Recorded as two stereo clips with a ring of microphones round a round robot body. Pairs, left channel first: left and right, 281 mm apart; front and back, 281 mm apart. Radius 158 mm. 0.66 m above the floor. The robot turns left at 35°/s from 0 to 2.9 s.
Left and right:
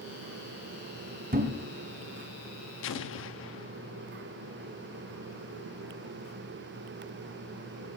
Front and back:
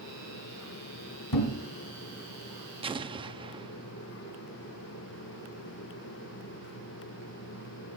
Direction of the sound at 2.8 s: 115° left.